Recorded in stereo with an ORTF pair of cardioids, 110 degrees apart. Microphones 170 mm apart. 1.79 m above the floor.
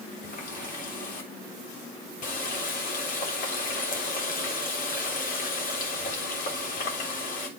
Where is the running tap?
60° left, 3.5 m.